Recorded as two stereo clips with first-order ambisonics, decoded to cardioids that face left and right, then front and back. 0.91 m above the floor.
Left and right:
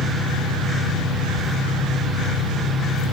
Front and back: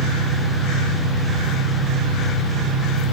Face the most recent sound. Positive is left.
turn(degrees=180)